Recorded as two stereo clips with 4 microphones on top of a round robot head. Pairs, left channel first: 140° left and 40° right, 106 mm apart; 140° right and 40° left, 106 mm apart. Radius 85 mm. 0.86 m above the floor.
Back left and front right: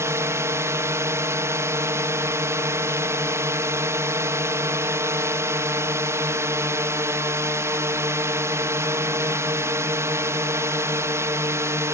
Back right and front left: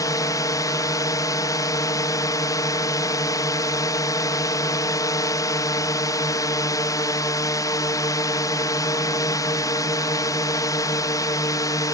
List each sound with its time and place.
0.0 s a drone: 95° right